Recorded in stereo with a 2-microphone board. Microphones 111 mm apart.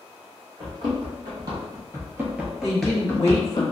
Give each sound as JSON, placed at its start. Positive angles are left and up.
{"t": 0.6, "sound": "running footsteps", "side_deg": -45, "distance_m": 1.7}
{"t": 2.6, "sound": "a woman speaking", "side_deg": 25, "distance_m": 1.2}